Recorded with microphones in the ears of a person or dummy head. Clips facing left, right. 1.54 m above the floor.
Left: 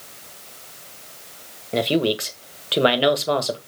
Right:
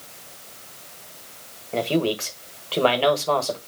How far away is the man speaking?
About 1.2 m.